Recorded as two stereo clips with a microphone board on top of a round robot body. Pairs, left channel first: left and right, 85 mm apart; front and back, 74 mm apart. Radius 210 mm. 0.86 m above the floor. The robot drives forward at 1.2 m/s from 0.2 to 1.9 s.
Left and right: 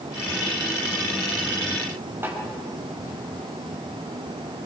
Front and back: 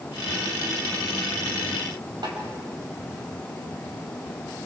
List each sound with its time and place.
2.2 s a snare drum: 155° right, 4 m